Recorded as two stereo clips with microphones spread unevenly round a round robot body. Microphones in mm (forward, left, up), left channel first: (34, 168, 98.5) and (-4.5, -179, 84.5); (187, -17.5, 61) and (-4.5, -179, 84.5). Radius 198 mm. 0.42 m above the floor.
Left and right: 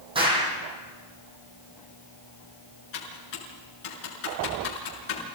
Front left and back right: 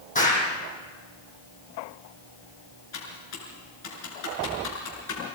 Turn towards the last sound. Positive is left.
turn(degrees=55)